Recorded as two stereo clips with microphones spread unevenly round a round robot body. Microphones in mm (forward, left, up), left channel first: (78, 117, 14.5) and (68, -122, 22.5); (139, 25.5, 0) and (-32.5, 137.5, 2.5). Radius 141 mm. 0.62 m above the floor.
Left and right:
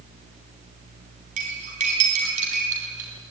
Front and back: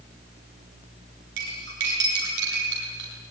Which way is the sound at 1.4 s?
160° right.